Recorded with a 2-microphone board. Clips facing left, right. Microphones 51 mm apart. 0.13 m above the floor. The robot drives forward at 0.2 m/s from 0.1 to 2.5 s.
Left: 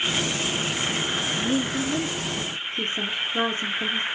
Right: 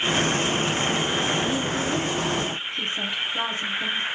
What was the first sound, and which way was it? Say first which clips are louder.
A woman speaking: even; 40° left (ahead or behind).